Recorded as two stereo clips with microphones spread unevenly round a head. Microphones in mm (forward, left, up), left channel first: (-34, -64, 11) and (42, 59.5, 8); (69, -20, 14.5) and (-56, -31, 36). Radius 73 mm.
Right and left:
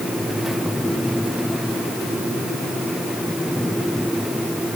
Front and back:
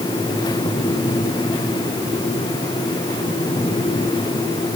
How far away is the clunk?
I don't hear a clunk.